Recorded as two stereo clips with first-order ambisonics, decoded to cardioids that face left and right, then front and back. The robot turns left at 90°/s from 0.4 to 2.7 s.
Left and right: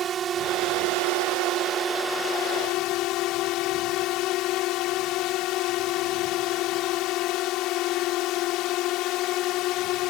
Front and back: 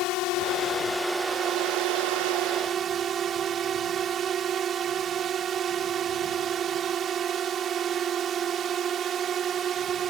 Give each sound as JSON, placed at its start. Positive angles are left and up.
{"t": 0.0, "sound": "a drone", "azimuth_deg": -30}